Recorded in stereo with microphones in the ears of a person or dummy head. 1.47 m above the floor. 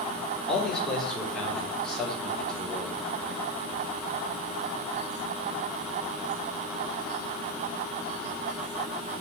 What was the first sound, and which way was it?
A man speaking, 10° left (ahead or behind).